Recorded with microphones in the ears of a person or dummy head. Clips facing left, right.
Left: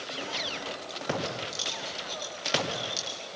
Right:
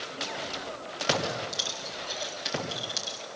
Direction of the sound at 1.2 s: 10° right (ahead or behind).